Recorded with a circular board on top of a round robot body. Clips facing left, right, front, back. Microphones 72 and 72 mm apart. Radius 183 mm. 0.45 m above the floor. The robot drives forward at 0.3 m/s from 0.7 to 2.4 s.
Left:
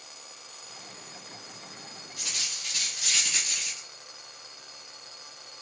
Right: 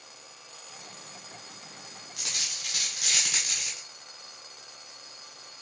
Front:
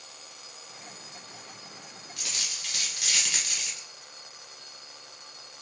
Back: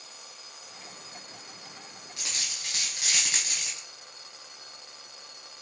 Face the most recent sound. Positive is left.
turn(degrees=-120)